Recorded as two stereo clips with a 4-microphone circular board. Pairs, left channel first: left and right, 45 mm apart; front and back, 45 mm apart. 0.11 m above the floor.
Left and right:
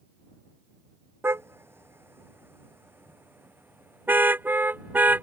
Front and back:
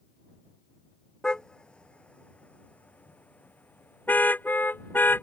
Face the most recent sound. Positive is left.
turn(degrees=-45)